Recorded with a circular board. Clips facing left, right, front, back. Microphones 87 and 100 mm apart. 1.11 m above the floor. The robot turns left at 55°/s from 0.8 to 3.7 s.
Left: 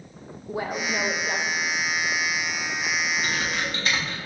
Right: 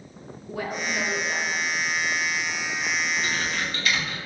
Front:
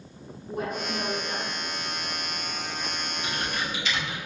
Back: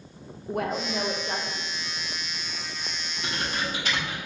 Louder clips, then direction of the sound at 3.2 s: Left 1 dB, back 2 dB; 170° left.